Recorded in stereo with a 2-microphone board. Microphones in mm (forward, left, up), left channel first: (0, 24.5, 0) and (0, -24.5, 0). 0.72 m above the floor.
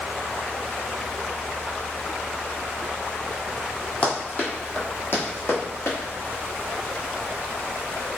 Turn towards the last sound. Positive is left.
turn(degrees=65)  # may be behind; listen again after turning